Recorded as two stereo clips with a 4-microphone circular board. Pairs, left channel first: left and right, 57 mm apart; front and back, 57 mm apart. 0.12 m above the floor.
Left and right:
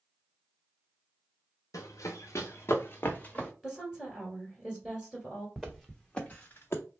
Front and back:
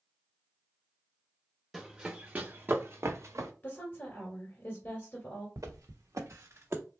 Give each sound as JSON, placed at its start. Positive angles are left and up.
{"t": 1.7, "sound": "running footsteps", "azimuth_deg": 95, "distance_m": 0.8}
{"t": 3.6, "sound": "a woman speaking", "azimuth_deg": -5, "distance_m": 1.4}
{"t": 5.6, "sound": "footsteps", "azimuth_deg": 180, "distance_m": 1.2}